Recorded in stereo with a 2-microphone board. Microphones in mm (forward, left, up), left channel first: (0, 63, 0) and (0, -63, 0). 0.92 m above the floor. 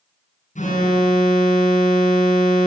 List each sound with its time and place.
0.6 s an alarm: 85° left, 7.5 m